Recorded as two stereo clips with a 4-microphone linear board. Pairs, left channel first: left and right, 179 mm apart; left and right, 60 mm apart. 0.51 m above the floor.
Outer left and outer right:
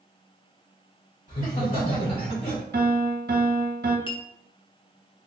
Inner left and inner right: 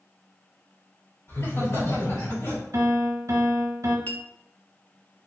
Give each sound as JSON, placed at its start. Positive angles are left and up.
{"t": 1.3, "sound": "laughter", "side_deg": 50, "distance_m": 2.0}
{"t": 2.7, "sound": "a piano", "side_deg": -65, "distance_m": 0.8}
{"t": 4.1, "sound": "a clink", "side_deg": 30, "distance_m": 0.6}